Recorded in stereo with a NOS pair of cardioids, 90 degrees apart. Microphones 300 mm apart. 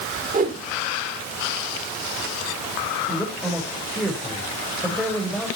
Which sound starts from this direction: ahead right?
A whoosh, at 0.3 s.